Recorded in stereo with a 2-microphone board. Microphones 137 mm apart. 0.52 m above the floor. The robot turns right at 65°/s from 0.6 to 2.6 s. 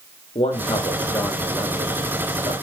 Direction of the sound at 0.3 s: 115° left.